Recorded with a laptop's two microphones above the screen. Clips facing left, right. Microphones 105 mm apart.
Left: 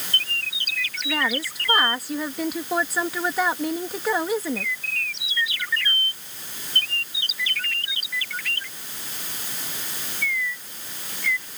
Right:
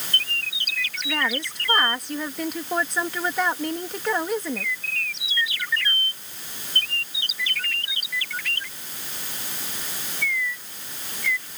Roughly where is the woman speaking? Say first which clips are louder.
Left 1 dB; centre.